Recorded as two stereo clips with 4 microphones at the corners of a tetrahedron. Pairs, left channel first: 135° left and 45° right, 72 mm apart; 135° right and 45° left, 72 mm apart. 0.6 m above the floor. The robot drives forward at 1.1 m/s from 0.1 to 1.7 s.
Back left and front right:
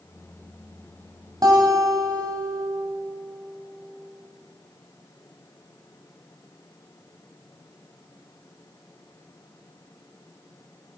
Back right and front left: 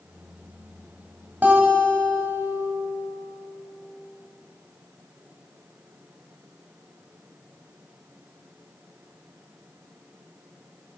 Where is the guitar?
20° right, 2.0 m.